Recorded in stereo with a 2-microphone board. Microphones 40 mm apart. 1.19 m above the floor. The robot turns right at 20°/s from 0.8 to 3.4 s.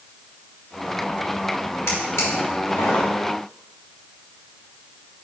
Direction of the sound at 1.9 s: 85° left.